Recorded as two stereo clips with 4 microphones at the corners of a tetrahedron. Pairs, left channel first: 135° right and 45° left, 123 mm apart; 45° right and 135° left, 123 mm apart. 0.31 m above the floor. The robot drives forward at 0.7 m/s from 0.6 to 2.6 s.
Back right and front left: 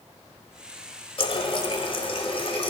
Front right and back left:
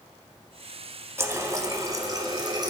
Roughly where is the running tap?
Behind.